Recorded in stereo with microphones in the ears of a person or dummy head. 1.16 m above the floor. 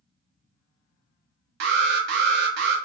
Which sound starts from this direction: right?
An alarm, at 1.6 s.